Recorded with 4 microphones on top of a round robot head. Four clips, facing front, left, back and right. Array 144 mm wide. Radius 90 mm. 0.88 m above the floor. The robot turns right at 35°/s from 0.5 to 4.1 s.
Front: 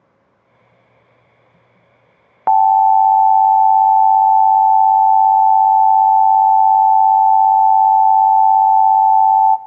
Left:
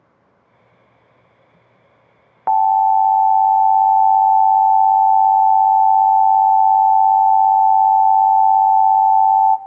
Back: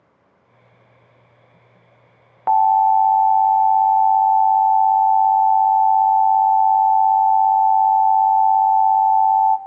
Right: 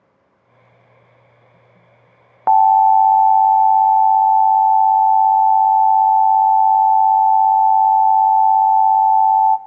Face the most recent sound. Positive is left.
turn(degrees=25)